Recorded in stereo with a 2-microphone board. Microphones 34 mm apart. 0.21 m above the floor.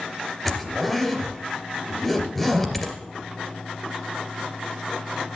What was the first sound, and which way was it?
A zipper, 5° left (ahead or behind).